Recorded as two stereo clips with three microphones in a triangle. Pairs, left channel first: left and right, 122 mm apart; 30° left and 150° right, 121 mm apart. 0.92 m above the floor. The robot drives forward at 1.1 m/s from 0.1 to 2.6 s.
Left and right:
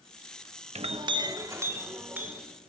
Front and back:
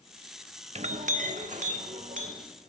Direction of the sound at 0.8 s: 120° right.